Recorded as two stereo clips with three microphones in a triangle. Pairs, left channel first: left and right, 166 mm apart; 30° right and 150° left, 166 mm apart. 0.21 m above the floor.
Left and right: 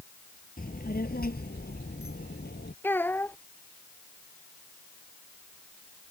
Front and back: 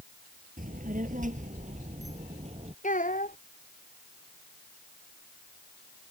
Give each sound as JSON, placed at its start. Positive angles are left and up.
{"t": 0.6, "sound": "a child speaking", "azimuth_deg": 120}
{"t": 2.8, "sound": "a child speaking", "azimuth_deg": 10}